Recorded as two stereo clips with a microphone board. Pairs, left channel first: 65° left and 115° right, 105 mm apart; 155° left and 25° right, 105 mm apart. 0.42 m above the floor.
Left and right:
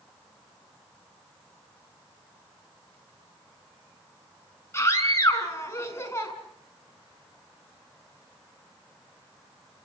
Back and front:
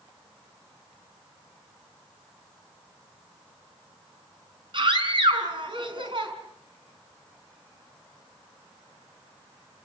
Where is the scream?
5° left, 5 m.